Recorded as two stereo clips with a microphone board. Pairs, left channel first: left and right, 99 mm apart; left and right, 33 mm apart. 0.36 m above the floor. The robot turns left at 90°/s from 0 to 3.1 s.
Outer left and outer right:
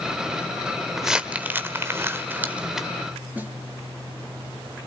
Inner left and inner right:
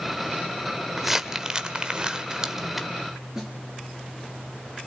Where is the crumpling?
Centre (ahead or behind), 1.2 m.